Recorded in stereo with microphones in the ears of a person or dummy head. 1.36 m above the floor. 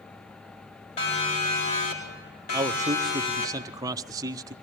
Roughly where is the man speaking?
Centre.